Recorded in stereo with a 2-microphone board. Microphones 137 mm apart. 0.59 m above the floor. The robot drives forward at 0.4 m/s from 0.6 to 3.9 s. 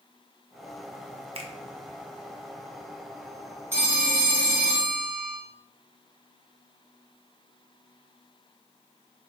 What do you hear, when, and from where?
1.4 s a finger snap: 45° right (ahead or behind), 0.5 m
3.7 s a phone ringing: 15° right (ahead or behind), 1.2 m